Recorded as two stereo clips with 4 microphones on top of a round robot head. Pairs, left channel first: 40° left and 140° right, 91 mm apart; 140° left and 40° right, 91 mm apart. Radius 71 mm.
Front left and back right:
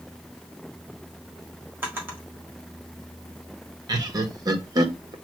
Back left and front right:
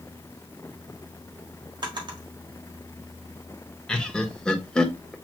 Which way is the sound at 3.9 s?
145° right.